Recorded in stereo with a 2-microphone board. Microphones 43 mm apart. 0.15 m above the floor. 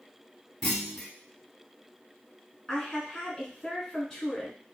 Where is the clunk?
5° left (ahead or behind), 0.8 m.